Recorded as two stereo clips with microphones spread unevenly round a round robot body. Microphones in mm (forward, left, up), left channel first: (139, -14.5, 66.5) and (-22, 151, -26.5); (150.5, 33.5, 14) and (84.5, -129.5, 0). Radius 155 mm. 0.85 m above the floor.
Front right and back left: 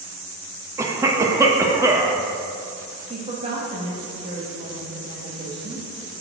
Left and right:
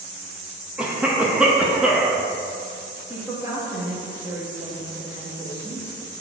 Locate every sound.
0.8 s a cough: 170° left, 0.6 m
3.1 s a woman speaking: straight behind, 1.1 m